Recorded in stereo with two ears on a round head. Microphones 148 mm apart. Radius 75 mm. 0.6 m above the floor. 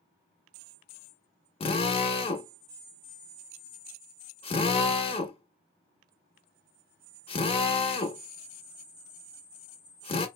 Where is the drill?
35° left (ahead or behind), 0.7 m.